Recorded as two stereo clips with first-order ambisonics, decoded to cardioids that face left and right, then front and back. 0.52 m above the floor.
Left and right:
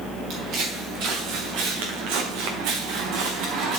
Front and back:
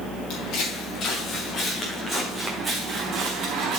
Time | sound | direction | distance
0.3 | footsteps | 45° right | 3.5 m